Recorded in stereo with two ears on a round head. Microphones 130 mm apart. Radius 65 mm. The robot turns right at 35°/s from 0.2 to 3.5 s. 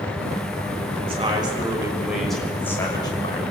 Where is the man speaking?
45° right, 6 m; by 3.4 s 40° left, 6 m.